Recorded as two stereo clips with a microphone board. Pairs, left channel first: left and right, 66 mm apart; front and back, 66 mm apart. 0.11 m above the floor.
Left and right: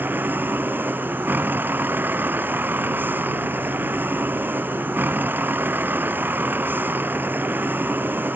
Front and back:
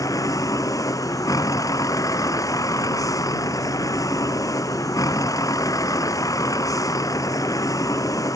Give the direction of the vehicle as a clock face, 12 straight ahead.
1 o'clock.